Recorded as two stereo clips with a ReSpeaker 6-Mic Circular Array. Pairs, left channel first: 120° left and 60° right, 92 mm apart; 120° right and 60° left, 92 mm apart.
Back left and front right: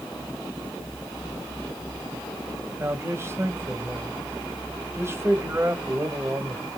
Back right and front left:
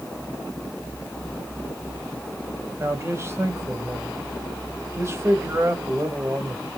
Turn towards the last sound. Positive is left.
turn(degrees=0)